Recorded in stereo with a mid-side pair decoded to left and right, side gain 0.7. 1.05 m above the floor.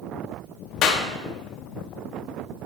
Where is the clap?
50° left, 1.4 m.